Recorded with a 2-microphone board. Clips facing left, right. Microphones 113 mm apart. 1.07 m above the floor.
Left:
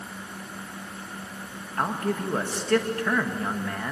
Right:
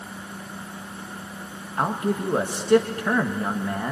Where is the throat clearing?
No throat clearing in this recording.